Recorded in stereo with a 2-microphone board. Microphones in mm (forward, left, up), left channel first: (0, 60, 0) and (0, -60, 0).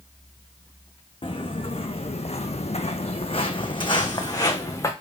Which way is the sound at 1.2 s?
45° left (ahead or behind).